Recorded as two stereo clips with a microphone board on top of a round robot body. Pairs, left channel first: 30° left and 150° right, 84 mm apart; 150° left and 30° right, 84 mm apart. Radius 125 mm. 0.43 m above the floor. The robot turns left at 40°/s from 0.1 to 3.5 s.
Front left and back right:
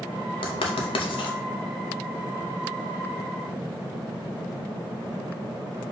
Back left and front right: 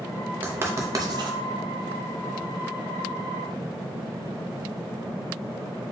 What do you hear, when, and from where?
0.4 s writing: 40° left, 0.6 m; by 1.4 s straight ahead, 0.6 m